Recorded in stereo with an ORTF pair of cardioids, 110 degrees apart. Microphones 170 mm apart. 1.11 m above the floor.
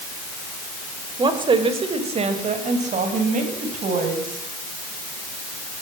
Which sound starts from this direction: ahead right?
A woman speaking, at 1.2 s.